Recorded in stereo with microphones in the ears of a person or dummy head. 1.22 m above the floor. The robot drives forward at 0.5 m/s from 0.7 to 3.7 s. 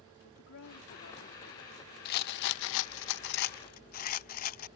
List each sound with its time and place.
0.2 s a woman speaking: 65° left (ahead or behind); by 1.9 s 60° left (ahead or behind)
2.0 s a rattle: 50° left (ahead or behind); by 4.7 s 45° left (ahead or behind)